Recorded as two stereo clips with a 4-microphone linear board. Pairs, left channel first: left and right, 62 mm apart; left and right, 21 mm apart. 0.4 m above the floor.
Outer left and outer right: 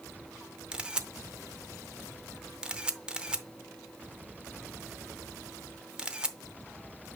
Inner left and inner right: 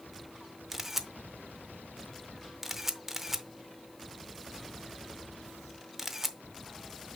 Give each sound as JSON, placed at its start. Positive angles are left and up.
{"t": 0.7, "sound": "a camera shutter", "side_deg": -15, "distance_m": 0.7}